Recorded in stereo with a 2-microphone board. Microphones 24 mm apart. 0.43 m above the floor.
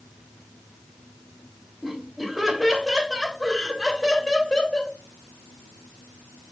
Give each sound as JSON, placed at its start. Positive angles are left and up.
{"t": 1.8, "sound": "laughter", "side_deg": -10, "distance_m": 2.0}